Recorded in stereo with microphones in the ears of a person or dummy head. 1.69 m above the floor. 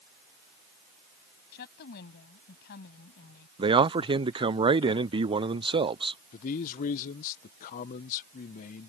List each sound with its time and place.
1.5 s a woman speaking: 60° left (ahead or behind)
3.6 s a man speaking: 35° right (ahead or behind)
6.3 s a man speaking: 50° left (ahead or behind)